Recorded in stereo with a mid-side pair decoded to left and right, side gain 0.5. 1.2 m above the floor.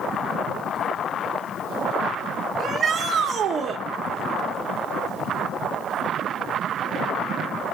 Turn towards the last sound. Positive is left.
turn(degrees=-45)